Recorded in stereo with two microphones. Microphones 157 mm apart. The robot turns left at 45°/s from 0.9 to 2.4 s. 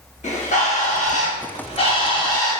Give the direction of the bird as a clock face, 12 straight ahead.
9 o'clock.